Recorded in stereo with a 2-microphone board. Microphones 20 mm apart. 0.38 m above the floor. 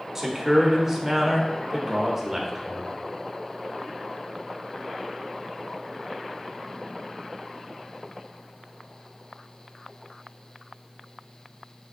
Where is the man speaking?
20° right (ahead or behind), 0.8 m.